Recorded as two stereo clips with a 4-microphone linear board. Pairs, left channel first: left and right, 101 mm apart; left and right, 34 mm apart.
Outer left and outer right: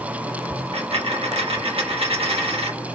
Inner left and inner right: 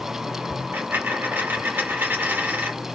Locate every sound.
0.7 s a dropped coin: 70° right (ahead or behind), 0.7 m